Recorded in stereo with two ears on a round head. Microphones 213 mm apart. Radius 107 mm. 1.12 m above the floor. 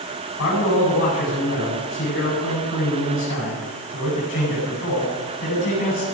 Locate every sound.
0.4 s a man speaking: 60° left (ahead or behind), 9 m